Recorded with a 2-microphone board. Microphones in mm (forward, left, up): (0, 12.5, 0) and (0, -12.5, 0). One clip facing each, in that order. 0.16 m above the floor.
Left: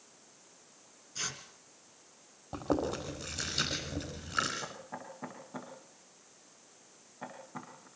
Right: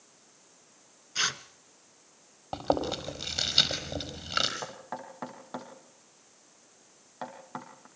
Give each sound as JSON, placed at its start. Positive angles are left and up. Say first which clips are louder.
{"t": 1.1, "sound": "tearing paper", "louder": "right 10 dB", "side_deg": -50, "distance_m": 1.0}
{"t": 2.5, "sound": "chewing", "louder": "right 4 dB", "side_deg": -60, "distance_m": 5.0}
{"t": 4.6, "sound": "knocking", "louder": "right 4 dB", "side_deg": -75, "distance_m": 5.5}